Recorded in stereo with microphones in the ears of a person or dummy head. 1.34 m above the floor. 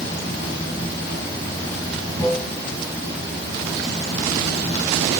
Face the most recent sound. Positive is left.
turn(degrees=15)  # may be behind; listen again after turning